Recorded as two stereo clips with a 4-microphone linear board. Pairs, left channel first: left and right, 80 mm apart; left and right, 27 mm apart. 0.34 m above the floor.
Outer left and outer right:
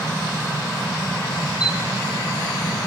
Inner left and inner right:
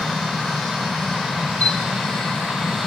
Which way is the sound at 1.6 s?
60° left (ahead or behind).